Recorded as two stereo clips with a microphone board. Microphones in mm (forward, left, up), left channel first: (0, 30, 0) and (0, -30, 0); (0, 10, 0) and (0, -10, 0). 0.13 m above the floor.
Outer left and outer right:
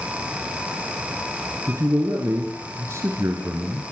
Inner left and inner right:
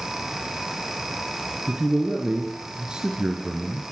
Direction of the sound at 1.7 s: 45° right (ahead or behind).